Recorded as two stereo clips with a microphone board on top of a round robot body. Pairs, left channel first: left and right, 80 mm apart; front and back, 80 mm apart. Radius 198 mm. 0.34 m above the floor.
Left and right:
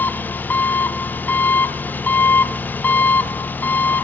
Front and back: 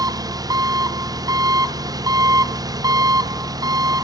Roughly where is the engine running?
Behind left.